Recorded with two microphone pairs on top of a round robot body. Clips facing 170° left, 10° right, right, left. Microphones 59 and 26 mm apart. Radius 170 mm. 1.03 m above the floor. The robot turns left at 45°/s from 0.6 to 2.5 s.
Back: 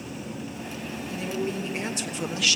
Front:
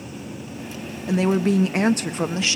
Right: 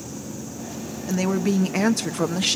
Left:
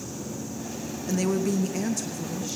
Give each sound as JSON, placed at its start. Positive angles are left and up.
{"t": 1.1, "sound": "a woman speaking", "azimuth_deg": -10, "distance_m": 1.2}